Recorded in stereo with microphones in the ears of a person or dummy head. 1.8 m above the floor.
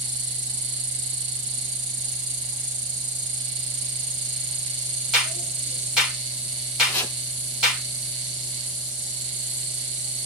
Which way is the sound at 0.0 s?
25° right (ahead or behind).